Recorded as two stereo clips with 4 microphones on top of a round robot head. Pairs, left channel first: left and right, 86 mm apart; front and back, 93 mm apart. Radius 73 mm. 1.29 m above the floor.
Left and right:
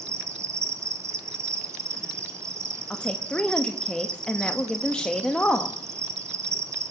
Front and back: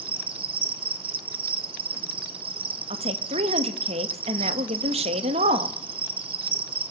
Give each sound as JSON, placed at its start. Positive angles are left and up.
{"t": 0.0, "sound": "an insect", "azimuth_deg": -150, "distance_m": 1.0}
{"t": 2.9, "sound": "a woman speaking", "azimuth_deg": 175, "distance_m": 1.6}